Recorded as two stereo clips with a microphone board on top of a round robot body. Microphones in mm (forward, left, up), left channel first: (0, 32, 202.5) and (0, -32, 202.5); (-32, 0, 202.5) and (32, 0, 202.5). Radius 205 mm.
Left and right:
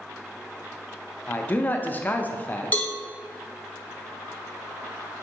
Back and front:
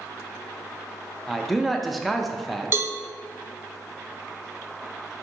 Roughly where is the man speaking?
Left.